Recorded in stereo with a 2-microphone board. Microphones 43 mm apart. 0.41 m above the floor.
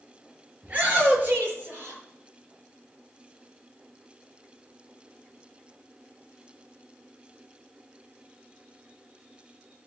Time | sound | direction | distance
0.6 | a shout | 30° right (ahead or behind) | 6.5 m